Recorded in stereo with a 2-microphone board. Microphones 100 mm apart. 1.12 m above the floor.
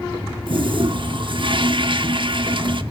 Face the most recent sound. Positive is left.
turn(degrees=-55)  # may be behind; listen again after turning